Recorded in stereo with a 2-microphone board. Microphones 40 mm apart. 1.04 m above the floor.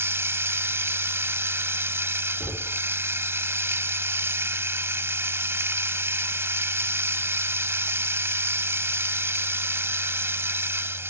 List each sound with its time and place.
0.0 s running water: 80° right
2.4 s knocking: 20° right (ahead or behind)